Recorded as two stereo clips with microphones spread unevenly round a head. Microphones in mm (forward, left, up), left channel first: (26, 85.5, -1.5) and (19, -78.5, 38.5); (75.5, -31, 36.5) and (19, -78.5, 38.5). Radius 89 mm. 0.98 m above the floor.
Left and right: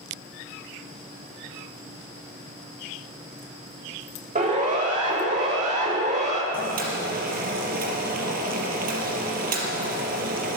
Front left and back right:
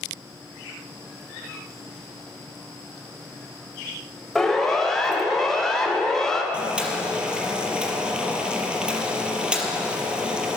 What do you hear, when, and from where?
4.3 s a siren: 45° right, 5 m; by 6.4 s 40° right, 3.5 m
6.5 s boiling: 65° right, 4.5 m